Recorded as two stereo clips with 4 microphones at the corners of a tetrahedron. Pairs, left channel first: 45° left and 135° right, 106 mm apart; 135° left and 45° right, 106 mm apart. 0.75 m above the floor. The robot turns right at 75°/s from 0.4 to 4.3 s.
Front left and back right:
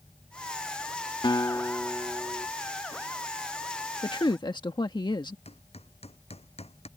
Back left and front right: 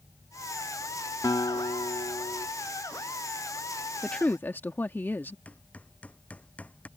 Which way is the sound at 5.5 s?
55° left.